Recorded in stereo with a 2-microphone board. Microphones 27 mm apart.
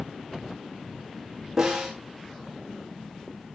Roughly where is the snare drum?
Right.